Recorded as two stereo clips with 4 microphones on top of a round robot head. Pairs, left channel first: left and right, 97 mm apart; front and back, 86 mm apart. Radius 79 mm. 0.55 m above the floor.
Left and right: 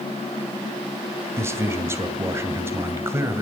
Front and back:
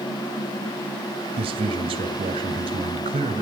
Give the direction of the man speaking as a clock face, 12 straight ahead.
5 o'clock.